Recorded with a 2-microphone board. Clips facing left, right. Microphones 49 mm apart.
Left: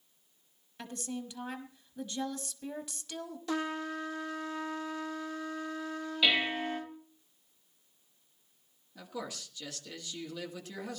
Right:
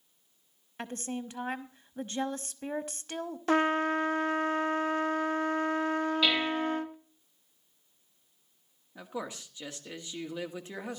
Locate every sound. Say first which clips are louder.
0.8 s a woman speaking: right 3 dB; 45° right (ahead or behind), 1.1 m
3.5 s a trumpet: right 9 dB; 50° right (ahead or behind), 0.6 m
6.2 s dishes clattering: left 4 dB; 10° left (ahead or behind), 2.5 m
8.9 s a man speaking: right 3 dB; 25° right (ahead or behind), 1.8 m